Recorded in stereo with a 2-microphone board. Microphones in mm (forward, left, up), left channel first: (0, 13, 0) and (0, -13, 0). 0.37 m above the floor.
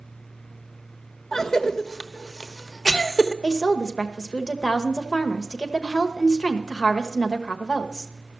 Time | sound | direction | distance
1.3 | a cough | 20° left (ahead or behind) | 1.0 m
3.4 | a woman speaking | 30° left (ahead or behind) | 1.2 m